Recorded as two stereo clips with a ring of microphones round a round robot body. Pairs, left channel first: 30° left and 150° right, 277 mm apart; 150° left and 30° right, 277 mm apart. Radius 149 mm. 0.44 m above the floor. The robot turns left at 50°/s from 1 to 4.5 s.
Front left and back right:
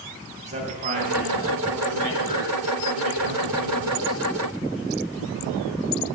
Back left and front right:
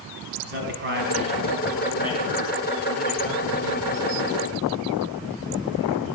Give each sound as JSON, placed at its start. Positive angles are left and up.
{"t": 0.4, "sound": "a man speaking", "azimuth_deg": -85, "distance_m": 3.5}